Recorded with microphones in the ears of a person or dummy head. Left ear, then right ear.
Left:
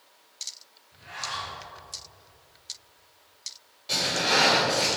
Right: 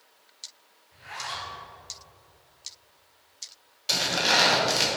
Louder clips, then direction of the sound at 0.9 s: Left 1 dB; 60° right (ahead or behind).